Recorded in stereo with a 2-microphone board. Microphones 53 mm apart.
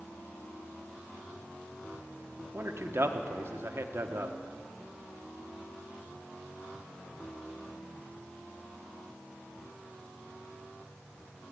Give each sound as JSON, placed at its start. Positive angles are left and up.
{"t": 2.5, "sound": "a man speaking", "side_deg": -50, "distance_m": 1.1}